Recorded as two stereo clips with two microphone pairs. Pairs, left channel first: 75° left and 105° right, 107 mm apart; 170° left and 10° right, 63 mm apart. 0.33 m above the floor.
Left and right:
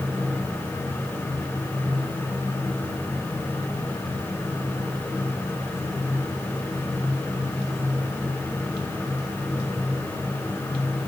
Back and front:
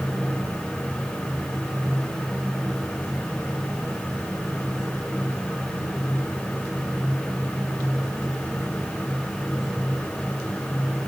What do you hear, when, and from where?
Only background noise.